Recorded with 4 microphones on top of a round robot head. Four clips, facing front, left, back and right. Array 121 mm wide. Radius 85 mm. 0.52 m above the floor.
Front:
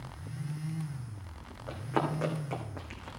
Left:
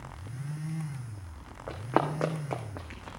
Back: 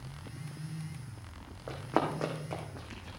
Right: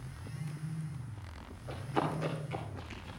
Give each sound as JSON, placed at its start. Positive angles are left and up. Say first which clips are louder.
{"t": 1.7, "sound": "running footsteps", "louder": "left 6 dB, back 1 dB", "azimuth_deg": 115, "distance_m": 2.5}